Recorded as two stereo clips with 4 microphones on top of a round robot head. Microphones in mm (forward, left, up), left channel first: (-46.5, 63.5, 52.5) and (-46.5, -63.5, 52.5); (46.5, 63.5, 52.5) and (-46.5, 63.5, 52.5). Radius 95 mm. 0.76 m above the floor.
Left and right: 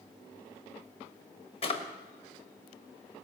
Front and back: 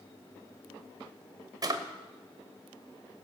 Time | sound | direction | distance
1.6 | a drawer | 130° left | 1.3 m